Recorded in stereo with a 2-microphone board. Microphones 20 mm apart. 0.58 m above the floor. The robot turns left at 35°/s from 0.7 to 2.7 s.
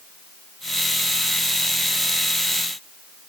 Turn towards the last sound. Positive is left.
No sound to turn to.